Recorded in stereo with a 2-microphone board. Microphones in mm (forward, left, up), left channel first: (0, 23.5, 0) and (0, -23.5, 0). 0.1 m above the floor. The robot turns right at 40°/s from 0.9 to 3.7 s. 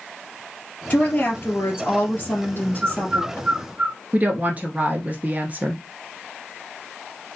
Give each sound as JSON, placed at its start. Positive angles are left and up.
{"t": 0.9, "sound": "a woman speaking", "azimuth_deg": 35, "distance_m": 2.5}
{"t": 2.8, "sound": "a bird", "side_deg": -15, "distance_m": 0.8}
{"t": 4.1, "sound": "a woman speaking", "side_deg": -30, "distance_m": 1.4}